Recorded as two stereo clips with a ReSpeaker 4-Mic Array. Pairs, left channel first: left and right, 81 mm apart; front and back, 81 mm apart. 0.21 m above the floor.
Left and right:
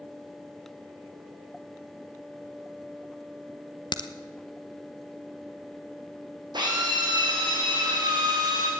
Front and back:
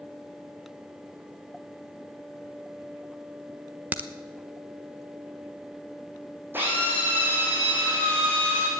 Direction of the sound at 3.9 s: 110° left.